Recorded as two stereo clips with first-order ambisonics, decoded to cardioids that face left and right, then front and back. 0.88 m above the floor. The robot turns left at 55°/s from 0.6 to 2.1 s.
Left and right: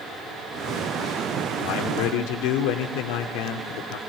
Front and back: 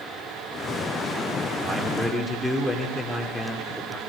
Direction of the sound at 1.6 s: 115° left.